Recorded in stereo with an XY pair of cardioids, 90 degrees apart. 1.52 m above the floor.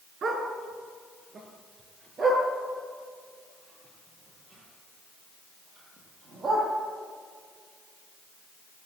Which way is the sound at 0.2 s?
60° right.